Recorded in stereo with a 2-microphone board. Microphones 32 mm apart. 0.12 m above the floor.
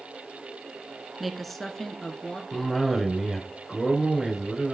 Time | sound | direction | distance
1.2 | a woman speaking | centre (ahead or behind) | 1.0 m
2.5 | a cough | centre (ahead or behind) | 1.9 m